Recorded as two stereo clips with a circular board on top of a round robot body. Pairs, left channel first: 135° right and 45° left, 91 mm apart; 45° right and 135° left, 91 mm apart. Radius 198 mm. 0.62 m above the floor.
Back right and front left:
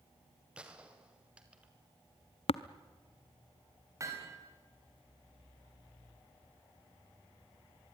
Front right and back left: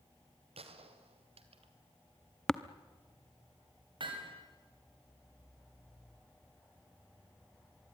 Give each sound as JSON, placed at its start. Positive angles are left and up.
{"t": 0.6, "sound": "a gunshot", "azimuth_deg": 125, "distance_m": 1.8}
{"t": 2.5, "sound": "tapping", "azimuth_deg": -130, "distance_m": 0.8}
{"t": 4.0, "sound": "hammering", "azimuth_deg": 105, "distance_m": 3.5}